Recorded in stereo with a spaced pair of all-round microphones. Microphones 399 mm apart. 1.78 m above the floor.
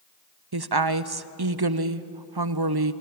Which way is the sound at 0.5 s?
65° right (ahead or behind).